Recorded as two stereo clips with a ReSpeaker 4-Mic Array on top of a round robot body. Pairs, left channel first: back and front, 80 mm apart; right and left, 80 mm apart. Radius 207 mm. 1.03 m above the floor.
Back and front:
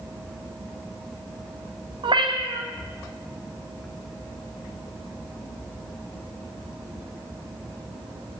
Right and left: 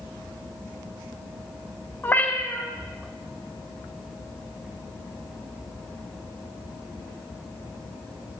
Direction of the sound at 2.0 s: 20° right.